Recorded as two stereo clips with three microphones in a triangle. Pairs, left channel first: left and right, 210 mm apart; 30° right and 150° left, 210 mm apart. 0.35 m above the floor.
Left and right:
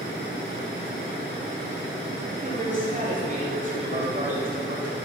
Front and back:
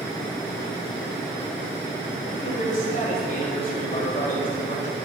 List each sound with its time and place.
2.3 s a man speaking: 60° right, 1.8 m